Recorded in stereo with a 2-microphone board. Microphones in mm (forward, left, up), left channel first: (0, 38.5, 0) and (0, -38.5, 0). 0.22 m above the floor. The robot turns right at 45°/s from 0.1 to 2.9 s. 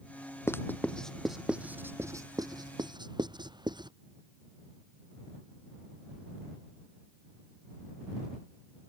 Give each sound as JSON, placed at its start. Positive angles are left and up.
{"t": 0.5, "sound": "writing", "side_deg": 35}